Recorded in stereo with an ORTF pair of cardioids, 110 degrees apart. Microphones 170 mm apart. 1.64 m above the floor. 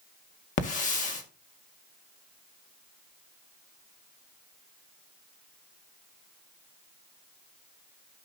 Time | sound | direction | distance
0.6 | a hiss | 45° left | 2.0 m